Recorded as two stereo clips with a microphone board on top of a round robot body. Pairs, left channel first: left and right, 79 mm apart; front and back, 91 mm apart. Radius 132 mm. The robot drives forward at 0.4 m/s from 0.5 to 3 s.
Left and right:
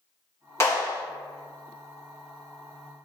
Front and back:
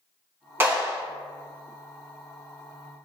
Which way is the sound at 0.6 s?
130° left.